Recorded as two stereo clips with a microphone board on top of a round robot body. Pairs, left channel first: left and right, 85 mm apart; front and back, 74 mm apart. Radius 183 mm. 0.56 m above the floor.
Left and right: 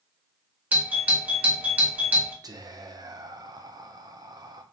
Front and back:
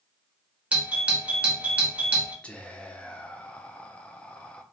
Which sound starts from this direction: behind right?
A doorbell, at 0.7 s.